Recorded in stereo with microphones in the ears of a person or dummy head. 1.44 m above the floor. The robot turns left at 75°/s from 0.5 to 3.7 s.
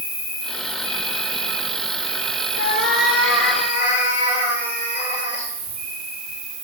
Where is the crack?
No crack in this recording.